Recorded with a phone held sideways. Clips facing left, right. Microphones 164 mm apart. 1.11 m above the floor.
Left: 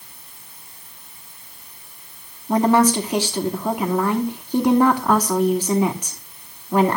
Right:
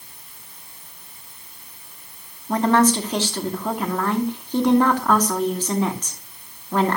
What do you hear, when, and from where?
2.5 s a woman speaking: 10° left (ahead or behind), 2 m